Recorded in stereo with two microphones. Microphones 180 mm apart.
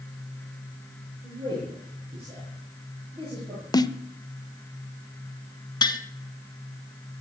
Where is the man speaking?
30° right (ahead or behind), 8.5 m.